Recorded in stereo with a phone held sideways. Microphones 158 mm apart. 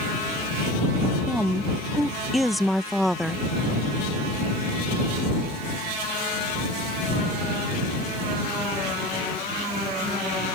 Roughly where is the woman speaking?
Centre.